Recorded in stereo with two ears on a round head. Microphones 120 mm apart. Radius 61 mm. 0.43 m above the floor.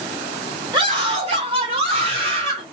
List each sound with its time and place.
0.7 s a scream: 35° right (ahead or behind), 1.8 m; by 2.6 s 45° right (ahead or behind), 1.9 m